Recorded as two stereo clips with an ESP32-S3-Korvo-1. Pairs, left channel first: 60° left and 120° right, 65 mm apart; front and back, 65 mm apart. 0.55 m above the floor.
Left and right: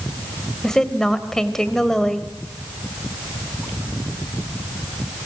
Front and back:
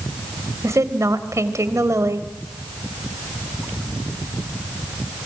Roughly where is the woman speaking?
Behind left.